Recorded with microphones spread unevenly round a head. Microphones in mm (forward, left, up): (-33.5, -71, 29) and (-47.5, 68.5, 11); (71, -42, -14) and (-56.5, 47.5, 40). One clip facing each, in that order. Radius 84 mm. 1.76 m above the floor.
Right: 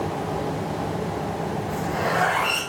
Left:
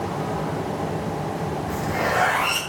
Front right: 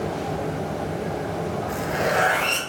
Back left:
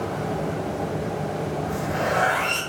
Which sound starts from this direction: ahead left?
A zipper, at 1.7 s.